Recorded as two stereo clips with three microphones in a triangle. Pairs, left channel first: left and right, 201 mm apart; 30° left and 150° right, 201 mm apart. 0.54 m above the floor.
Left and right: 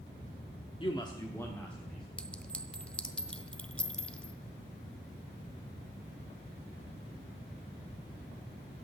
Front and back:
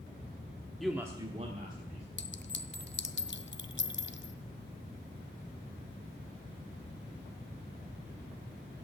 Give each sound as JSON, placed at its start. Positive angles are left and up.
{"t": 0.8, "sound": "a man speaking", "azimuth_deg": 115, "distance_m": 1.1}
{"t": 2.2, "sound": "a clink", "azimuth_deg": 5, "distance_m": 0.5}